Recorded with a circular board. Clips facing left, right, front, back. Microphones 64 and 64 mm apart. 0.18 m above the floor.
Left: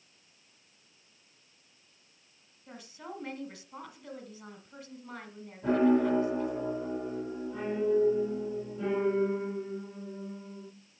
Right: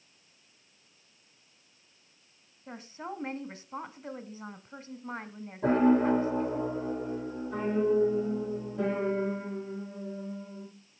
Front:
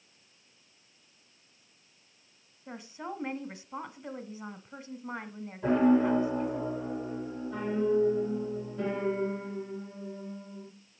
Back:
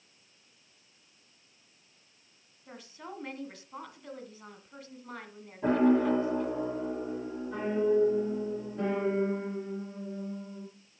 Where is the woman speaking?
55° right, 1.2 m.